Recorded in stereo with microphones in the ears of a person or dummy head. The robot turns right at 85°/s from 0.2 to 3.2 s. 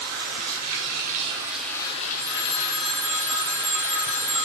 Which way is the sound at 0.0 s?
125° right.